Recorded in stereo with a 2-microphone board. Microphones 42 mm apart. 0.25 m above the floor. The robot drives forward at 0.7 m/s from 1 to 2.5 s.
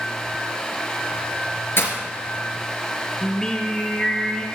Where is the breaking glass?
60° left (ahead or behind), 3 m.